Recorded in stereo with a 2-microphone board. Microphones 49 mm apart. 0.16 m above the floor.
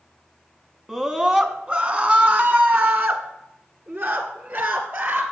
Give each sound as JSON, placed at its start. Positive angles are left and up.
{"t": 0.9, "sound": "a scream", "side_deg": -10, "distance_m": 1.2}